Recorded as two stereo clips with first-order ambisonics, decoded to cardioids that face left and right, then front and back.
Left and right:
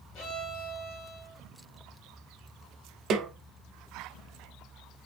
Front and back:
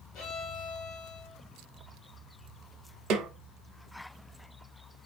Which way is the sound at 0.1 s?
60° left.